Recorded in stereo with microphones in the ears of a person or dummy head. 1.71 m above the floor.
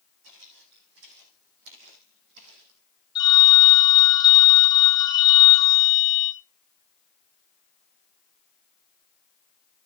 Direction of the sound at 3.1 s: 20° left (ahead or behind).